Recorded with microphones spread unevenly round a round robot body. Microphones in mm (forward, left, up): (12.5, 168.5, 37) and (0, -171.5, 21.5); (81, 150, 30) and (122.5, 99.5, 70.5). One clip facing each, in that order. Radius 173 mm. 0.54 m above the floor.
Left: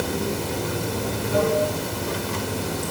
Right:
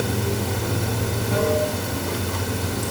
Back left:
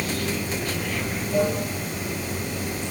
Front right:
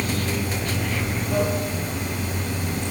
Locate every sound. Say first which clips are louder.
0.0 s running water: right 1 dB, front right 1 dB; 65° right, 5.5 m